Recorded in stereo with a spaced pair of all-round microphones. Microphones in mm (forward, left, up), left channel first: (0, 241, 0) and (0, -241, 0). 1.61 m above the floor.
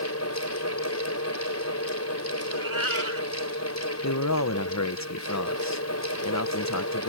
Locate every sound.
0.0 s a fan: 30° left (ahead or behind)
2.5 s a cat meowing: 80° right
4.0 s a man speaking: 35° left (ahead or behind)